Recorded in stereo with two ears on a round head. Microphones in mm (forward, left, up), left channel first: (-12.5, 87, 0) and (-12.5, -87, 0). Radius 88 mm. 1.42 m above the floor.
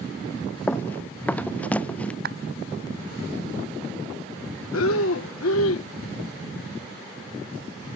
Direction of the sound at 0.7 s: 10° left (ahead or behind).